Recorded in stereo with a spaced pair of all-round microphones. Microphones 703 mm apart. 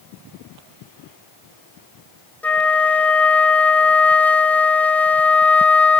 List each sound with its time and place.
2.4 s a flute: centre (ahead or behind), 1.0 m